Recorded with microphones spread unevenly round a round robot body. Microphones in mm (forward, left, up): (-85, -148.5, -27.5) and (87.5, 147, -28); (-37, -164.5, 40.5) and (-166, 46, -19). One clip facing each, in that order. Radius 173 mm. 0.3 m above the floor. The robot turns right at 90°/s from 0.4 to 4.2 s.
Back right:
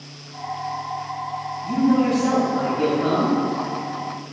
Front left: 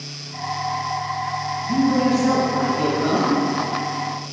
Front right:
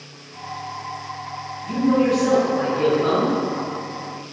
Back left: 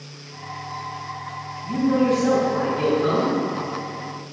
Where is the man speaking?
30° right, 1.5 m; by 3.3 s 125° left, 1.5 m.